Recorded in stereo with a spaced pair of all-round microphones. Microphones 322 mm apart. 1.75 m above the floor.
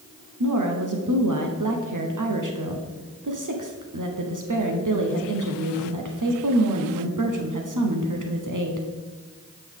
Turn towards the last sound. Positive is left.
turn(degrees=-70)  # may be behind; listen again after turning